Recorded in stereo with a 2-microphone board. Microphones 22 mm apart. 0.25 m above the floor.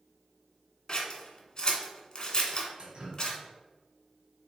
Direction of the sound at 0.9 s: 35° left (ahead or behind).